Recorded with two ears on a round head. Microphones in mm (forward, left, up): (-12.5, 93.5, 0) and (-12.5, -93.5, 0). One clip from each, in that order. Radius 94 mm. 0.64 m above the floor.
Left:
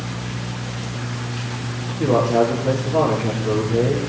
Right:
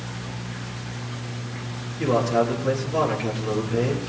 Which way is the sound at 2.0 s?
40° right (ahead or behind).